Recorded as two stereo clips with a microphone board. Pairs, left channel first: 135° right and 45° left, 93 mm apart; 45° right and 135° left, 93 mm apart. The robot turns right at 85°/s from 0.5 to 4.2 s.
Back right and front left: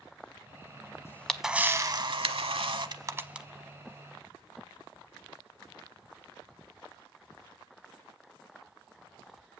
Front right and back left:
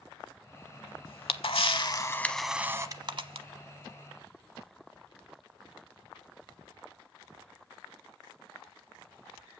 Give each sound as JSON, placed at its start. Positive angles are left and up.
{"t": 1.1, "sound": "a camera shutter", "azimuth_deg": -75, "distance_m": 0.7}